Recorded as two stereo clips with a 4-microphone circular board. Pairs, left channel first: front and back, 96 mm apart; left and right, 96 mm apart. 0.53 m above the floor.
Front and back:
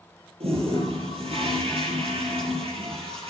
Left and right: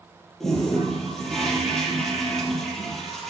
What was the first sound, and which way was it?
A toilet flushing, 175° left.